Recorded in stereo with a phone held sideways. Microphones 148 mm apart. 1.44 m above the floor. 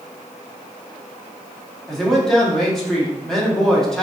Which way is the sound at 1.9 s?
5° left (ahead or behind).